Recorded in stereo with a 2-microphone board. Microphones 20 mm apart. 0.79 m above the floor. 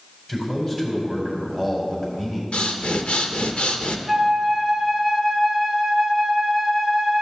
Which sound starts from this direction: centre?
A flute, at 4.1 s.